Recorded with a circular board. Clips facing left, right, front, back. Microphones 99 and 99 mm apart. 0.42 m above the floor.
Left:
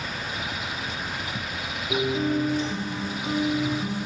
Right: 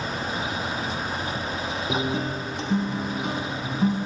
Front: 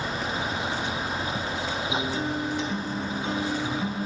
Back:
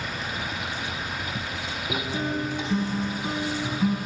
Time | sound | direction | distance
1.9 | a guitar | 100° right | 0.7 m